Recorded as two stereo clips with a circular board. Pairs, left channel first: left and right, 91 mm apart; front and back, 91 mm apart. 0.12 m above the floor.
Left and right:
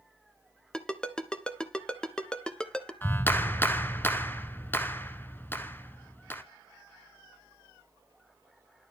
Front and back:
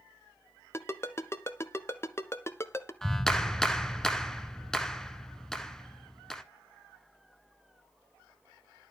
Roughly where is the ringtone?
Ahead.